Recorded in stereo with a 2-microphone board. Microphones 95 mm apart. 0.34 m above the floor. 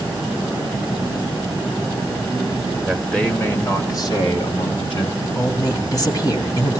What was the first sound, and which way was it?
A man speaking, centre (ahead or behind).